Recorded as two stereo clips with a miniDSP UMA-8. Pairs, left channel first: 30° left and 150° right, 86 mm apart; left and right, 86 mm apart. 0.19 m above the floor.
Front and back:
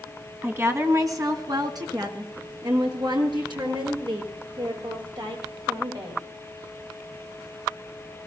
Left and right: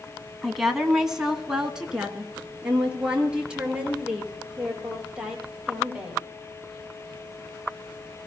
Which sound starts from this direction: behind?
A woman speaking, at 0.4 s.